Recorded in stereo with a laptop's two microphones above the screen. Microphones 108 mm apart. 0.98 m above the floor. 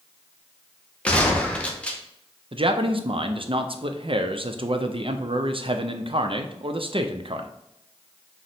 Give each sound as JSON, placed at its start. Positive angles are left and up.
{"t": 1.1, "sound": "a gunshot", "side_deg": 10, "distance_m": 0.6}
{"t": 2.5, "sound": "a man speaking", "side_deg": -55, "distance_m": 0.6}